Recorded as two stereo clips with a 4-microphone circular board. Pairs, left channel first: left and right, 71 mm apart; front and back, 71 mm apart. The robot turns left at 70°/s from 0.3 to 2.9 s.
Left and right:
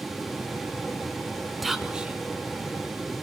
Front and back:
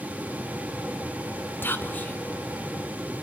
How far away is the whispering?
About 1.2 m.